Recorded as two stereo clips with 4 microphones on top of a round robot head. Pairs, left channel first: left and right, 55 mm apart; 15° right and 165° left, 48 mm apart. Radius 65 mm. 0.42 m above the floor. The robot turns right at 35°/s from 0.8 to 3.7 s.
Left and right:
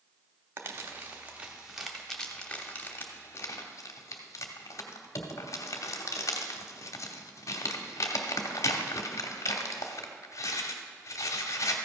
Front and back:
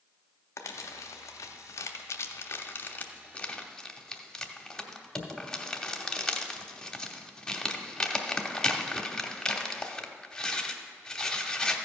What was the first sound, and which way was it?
Crumpling, 45° right.